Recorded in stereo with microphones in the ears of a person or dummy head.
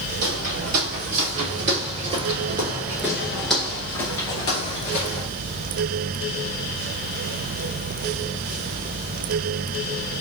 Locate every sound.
0.2 s footsteps: 55° right (ahead or behind), 2.0 m; by 5.3 s 35° left (ahead or behind), 1.6 m